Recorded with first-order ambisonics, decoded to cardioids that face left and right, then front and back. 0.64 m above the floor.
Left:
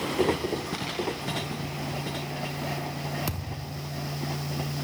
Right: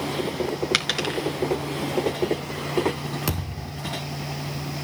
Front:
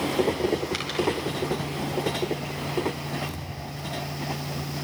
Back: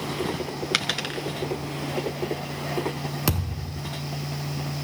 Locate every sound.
0.7 s a dropped coin: 125° right, 3.5 m
3.3 s a thud: 160° right, 3.5 m